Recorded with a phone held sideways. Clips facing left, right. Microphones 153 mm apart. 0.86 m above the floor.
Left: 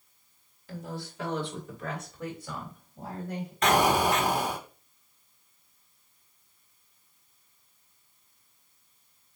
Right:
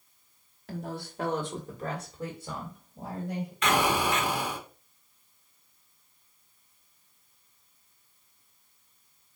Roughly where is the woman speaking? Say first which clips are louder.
Right 2 dB; right.